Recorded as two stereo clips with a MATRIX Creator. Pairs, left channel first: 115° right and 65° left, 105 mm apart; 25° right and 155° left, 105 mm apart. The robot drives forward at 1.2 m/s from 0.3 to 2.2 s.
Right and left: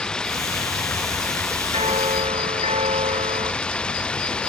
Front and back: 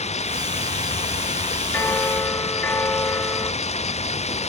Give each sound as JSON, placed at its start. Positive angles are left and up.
{"t": 0.0, "sound": "running water", "azimuth_deg": -30}
{"t": 1.7, "sound": "a bell", "azimuth_deg": 50}